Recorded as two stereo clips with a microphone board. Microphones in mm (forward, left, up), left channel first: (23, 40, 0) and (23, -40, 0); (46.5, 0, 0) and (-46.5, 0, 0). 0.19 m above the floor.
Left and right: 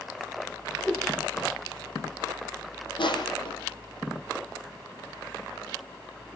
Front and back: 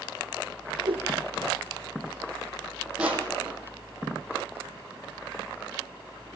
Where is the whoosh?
Straight behind, 4 m.